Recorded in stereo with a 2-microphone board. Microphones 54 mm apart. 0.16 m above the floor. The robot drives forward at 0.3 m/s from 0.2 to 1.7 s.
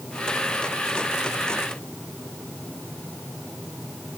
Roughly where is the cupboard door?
No cupboard door in this recording.